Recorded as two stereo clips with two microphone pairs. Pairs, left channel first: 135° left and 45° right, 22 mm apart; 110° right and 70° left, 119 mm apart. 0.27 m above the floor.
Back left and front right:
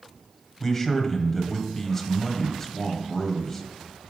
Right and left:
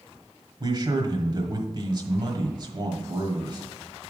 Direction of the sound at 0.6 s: 80° left.